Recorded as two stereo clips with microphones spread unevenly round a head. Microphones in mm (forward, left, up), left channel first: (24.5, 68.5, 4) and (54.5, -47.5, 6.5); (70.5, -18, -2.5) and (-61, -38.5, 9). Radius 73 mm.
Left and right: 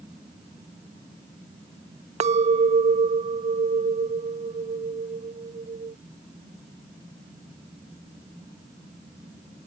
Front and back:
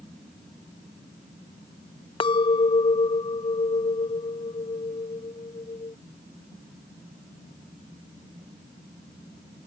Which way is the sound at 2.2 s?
45° right.